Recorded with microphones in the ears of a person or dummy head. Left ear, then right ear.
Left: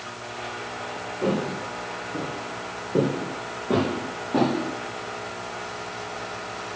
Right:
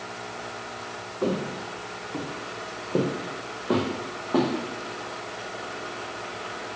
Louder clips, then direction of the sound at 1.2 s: Left 2 dB; 60° right (ahead or behind).